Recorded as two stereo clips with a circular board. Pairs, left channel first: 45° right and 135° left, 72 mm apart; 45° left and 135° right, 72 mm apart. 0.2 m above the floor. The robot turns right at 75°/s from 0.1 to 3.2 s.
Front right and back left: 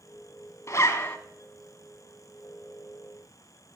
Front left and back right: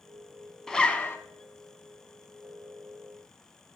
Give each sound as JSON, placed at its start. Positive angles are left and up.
{"t": 0.7, "sound": "a zipper", "azimuth_deg": -35, "distance_m": 1.1}